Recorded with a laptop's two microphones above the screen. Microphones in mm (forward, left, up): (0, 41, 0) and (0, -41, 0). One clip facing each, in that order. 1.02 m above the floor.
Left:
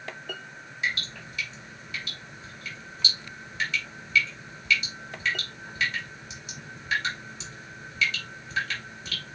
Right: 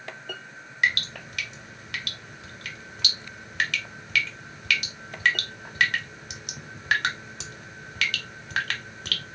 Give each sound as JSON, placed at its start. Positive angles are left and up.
{"t": 0.8, "sound": "dripping", "side_deg": -70, "distance_m": 0.8}